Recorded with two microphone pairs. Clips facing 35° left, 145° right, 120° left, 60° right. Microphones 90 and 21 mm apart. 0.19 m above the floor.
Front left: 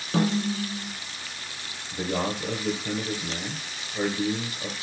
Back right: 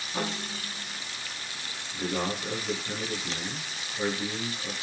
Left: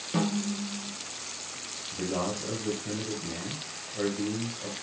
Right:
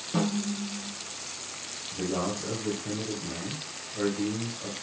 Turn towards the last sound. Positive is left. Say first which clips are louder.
# front left 3 dB, right 1 dB
turn(degrees=25)